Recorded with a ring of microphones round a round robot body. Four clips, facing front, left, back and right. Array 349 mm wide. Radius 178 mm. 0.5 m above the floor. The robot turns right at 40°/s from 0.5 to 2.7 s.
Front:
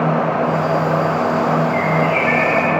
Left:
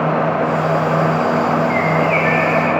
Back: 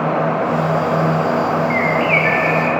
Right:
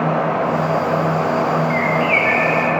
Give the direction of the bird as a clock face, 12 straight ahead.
6 o'clock.